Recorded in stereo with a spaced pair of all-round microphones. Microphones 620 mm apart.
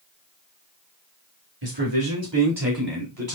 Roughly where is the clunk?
No clunk in this recording.